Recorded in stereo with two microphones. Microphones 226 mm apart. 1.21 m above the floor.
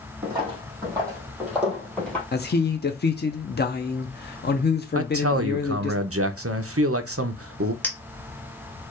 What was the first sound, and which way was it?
Footsteps, 20° right (ahead or behind).